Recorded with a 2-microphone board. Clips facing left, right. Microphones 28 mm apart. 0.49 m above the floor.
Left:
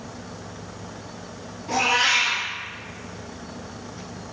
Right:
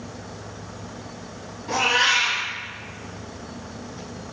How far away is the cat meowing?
About 1.0 m.